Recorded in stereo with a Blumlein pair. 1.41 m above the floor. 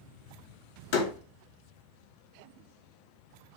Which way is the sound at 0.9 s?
50° left.